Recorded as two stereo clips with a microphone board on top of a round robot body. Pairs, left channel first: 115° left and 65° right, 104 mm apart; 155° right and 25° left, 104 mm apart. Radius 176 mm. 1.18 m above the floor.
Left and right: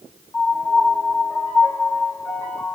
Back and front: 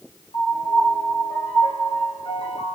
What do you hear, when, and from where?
0.3 s a piano: straight behind, 1.0 m